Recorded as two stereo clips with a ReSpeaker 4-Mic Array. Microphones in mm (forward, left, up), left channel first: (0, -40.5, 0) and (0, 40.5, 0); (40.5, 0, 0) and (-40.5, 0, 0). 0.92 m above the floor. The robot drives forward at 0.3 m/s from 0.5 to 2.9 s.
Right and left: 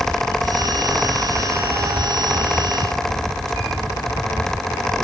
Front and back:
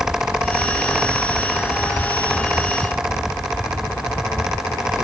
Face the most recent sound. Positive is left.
No sound to turn to.